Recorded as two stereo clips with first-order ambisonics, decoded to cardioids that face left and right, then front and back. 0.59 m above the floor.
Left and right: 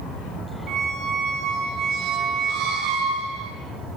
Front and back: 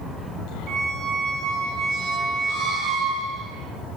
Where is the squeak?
130° right, 3.5 m.